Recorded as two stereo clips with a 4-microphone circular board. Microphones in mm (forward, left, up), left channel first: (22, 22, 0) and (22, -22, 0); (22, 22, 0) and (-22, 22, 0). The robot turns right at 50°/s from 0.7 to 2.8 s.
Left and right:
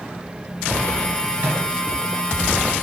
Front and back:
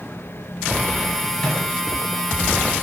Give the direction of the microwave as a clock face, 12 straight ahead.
2 o'clock.